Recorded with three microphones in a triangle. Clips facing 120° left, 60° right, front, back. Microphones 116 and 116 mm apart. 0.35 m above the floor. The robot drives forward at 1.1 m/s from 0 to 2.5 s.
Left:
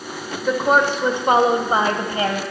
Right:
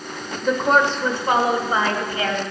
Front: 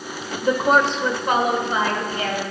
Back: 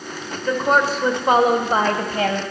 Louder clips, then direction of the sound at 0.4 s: Left 1 dB, front 1 dB; 25° left.